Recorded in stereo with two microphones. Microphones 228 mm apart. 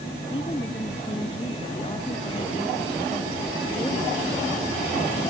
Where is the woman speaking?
25° left (ahead or behind).